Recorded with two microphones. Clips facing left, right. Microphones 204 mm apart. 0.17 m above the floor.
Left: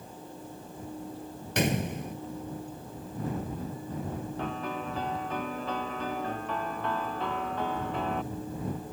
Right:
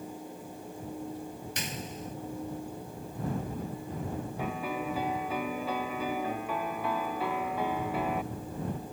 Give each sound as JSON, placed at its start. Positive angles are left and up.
{"t": 1.6, "sound": "a gunshot", "side_deg": 70}
{"t": 4.4, "sound": "a piano", "side_deg": -10}